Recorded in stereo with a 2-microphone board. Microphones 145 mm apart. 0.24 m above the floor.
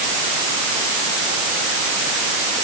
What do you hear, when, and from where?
Only background noise.